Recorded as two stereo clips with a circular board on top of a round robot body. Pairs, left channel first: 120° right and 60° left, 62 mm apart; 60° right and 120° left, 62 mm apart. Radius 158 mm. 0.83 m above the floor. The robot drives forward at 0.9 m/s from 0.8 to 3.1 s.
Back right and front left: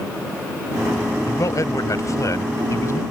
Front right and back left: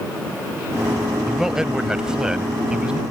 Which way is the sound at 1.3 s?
155° right.